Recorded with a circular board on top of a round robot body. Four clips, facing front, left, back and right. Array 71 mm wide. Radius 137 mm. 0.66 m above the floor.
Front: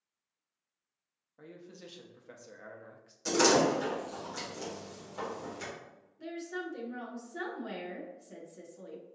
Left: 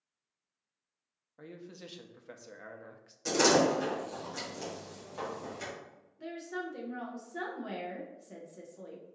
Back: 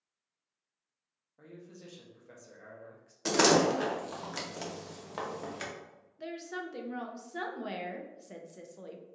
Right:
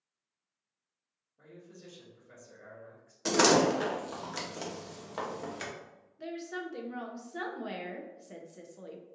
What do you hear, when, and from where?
1.4 s a man speaking: 75° left, 0.7 m
3.2 s a door slam: 140° right, 1.1 m
6.2 s a woman speaking: 155° right, 0.8 m